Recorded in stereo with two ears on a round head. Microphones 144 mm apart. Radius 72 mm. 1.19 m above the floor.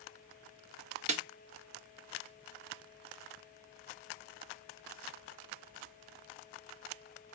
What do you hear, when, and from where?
1.1 s a snare drum: 45° right (ahead or behind), 1.2 m